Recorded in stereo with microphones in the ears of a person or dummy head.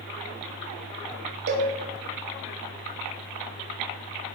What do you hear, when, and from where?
1.5 s a cowbell: 55° right (ahead or behind), 0.9 m